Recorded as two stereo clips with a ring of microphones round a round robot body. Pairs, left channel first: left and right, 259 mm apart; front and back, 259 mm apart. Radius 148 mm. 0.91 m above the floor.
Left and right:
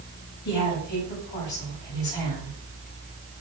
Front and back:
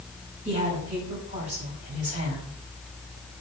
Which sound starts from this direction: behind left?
A woman speaking, at 0.5 s.